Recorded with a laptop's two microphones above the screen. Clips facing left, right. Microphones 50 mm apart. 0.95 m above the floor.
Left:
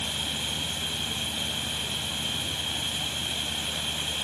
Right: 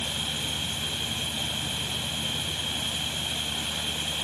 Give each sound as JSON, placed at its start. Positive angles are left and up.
{"t": 0.0, "sound": "a fan", "side_deg": 0}